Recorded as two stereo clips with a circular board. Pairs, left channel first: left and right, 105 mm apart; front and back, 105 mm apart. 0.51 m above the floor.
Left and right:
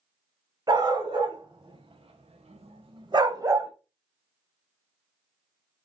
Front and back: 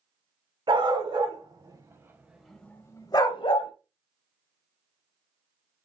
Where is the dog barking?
140° right, 1.2 m; by 3.7 s 25° right, 0.7 m.